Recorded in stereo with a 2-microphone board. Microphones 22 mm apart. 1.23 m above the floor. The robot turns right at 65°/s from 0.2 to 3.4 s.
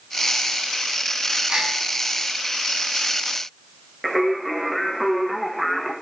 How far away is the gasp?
About 1.7 m.